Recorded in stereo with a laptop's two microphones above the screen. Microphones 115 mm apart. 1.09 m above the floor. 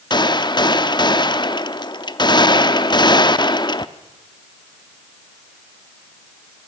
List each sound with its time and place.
0.1 s a gunshot: 40° left (ahead or behind), 0.8 m